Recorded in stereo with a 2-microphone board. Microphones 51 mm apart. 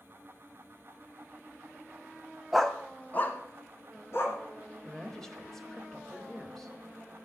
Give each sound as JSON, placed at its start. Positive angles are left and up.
{"t": 2.5, "sound": "a dog barking", "side_deg": -5, "distance_m": 0.7}
{"t": 4.8, "sound": "a woman speaking", "side_deg": 10, "distance_m": 1.0}